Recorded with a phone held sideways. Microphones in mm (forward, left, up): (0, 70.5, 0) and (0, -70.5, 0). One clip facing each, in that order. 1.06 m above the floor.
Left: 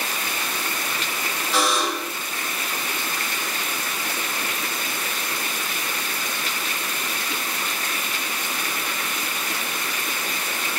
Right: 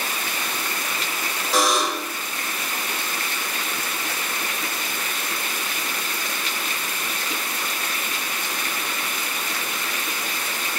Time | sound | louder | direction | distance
1.5 | a buzzer | right 2 dB | 40° right (ahead or behind) | 0.9 m